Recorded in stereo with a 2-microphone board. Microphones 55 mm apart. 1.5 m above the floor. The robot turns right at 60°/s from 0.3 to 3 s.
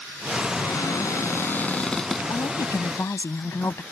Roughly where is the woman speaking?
Left.